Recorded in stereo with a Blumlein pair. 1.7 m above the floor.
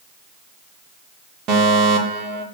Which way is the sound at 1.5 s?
35° right.